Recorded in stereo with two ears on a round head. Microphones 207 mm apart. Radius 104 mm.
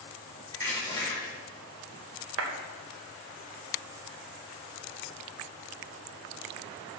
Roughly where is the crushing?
Centre.